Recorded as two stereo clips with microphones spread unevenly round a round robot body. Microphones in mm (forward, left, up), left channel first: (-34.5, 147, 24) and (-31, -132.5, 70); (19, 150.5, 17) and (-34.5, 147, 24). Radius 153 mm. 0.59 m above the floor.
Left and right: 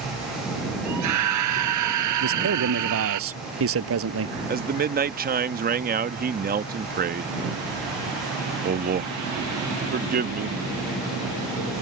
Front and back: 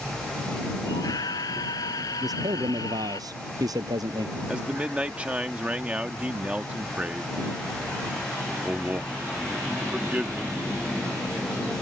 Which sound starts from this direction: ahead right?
A scream, at 0.8 s.